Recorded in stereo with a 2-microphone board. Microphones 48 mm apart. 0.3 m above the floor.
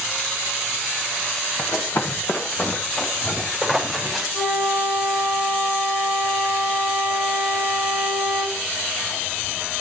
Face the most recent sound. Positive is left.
turn(degrees=75)  # may be behind; listen again after turning